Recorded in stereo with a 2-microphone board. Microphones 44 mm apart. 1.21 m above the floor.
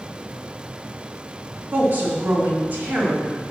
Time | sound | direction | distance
1.7 | a woman speaking | 45° right (ahead or behind) | 2.5 m